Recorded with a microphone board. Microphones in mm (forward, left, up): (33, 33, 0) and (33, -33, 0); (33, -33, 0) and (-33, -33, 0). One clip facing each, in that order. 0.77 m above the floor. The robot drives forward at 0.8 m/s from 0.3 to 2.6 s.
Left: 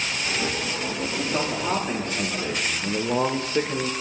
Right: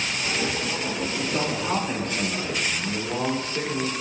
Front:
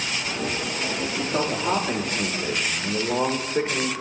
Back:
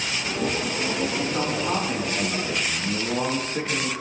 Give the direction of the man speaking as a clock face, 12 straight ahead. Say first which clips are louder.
Left 2 dB, even; 11 o'clock.